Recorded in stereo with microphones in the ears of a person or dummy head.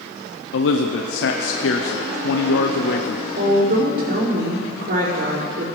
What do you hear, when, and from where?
0.5 s a man speaking: 75° left (ahead or behind), 0.7 m
3.3 s a woman speaking: 60° right (ahead or behind), 5.5 m